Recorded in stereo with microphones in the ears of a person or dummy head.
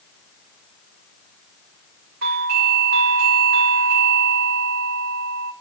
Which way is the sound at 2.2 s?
45° right (ahead or behind).